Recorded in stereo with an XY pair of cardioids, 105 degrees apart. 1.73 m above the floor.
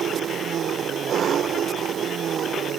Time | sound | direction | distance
0.0 | an engine running | 55° right | ?